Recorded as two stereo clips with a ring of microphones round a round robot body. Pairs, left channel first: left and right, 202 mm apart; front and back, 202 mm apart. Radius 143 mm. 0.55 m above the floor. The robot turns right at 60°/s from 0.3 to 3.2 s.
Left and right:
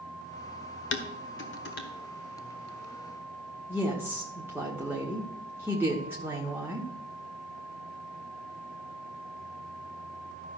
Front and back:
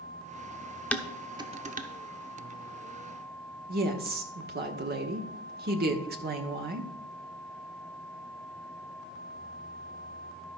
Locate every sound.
0.9 s dishes clattering: 85° left, 1.1 m; by 1.9 s 140° left, 1.1 m
3.7 s a woman speaking: 170° right, 1.1 m